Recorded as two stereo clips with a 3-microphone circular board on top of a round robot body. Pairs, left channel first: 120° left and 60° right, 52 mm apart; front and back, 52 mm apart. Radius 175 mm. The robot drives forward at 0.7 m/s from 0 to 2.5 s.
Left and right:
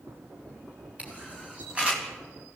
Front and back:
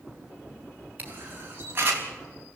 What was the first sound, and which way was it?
A camera shutter, 125° right.